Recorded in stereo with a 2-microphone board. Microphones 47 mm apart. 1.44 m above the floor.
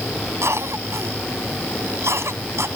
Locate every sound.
0.4 s a cough: 65° right (ahead or behind)